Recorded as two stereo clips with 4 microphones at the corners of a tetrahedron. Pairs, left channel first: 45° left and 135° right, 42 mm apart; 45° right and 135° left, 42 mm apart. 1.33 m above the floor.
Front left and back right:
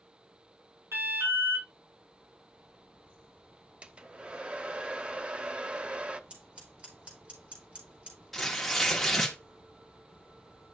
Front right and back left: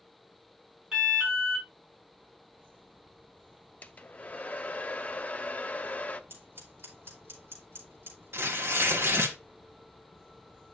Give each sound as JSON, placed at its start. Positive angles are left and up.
{"t": 0.9, "sound": "an alarm", "azimuth_deg": -150, "distance_m": 5.0}
{"t": 3.8, "sound": "a hair dryer", "azimuth_deg": -85, "distance_m": 0.6}
{"t": 6.3, "sound": "scissors", "azimuth_deg": 160, "distance_m": 3.5}
{"t": 8.3, "sound": "tearing paper", "azimuth_deg": 130, "distance_m": 1.3}